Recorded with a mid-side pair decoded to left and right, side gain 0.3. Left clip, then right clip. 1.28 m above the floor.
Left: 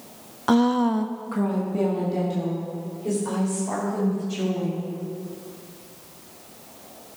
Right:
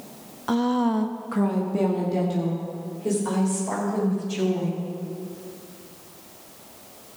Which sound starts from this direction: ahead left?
A woman speaking, at 0.5 s.